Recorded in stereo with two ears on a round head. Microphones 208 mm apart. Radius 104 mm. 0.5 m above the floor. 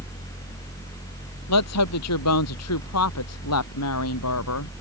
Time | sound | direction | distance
1.5 | a woman speaking | 80° left | ?